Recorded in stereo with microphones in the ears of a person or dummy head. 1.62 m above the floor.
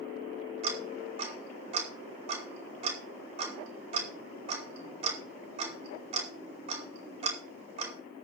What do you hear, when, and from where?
0.6 s ticking: 40° right (ahead or behind), 4.5 m